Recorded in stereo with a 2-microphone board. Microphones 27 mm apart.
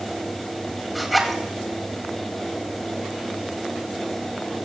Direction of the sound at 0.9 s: Centre (ahead or behind).